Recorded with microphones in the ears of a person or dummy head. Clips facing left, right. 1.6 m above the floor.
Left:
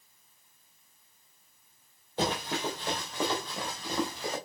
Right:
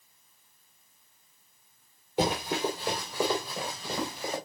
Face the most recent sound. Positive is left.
turn(degrees=-5)  # may be behind; listen again after turning